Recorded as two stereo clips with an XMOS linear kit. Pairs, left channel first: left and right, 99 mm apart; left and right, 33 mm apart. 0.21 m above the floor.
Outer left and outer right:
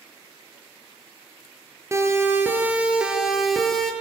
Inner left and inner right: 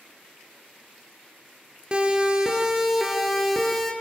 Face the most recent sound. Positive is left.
turn(degrees=5)  # may be behind; listen again after turning